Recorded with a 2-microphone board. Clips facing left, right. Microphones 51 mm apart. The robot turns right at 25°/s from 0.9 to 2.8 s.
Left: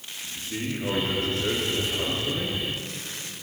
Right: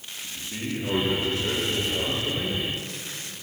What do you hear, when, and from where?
0.2 s a man speaking: 115° left, 9.5 m; by 2.6 s 155° left, 9.5 m